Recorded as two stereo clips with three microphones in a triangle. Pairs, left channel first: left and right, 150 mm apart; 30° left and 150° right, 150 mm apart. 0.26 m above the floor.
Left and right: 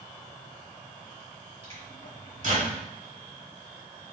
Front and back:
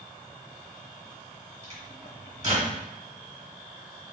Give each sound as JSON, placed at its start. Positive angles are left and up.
{"t": 1.6, "sound": "a microwave", "azimuth_deg": -115, "distance_m": 1.9}